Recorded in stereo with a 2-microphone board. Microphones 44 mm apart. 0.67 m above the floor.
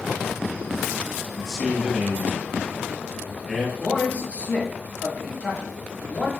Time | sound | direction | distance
1.4 | a man speaking | 5° left (ahead or behind) | 1.2 m
3.8 | a man speaking | 30° left (ahead or behind) | 1.4 m